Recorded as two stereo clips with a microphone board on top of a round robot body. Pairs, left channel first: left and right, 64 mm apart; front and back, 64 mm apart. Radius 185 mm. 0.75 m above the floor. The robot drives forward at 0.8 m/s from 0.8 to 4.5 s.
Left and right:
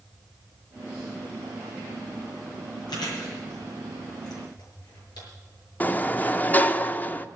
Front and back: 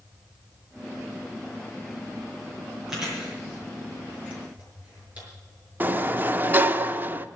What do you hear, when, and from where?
2.9 s chewing: 100° left, 5.5 m; by 5.3 s 110° left, 6 m
5.8 s a sliding door: 140° left, 0.8 m